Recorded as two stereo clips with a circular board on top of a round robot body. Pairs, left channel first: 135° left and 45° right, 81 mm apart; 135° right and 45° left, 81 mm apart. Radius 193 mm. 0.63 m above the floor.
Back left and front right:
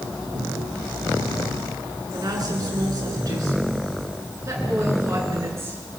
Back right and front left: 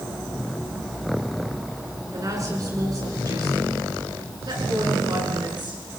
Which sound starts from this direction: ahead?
A woman speaking, at 2.1 s.